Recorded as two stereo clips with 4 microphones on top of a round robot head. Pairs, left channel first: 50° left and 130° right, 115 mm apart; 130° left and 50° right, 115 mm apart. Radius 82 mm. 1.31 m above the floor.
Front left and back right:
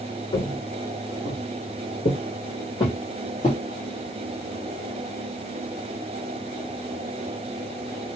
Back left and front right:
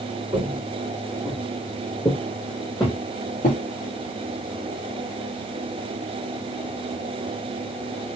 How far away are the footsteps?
About 1.6 m.